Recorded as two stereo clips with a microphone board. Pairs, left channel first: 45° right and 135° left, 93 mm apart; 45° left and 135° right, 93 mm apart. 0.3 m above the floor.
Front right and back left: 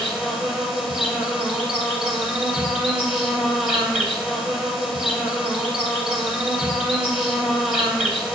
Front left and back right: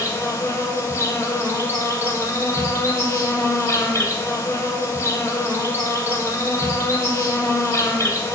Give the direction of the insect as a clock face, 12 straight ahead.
10 o'clock.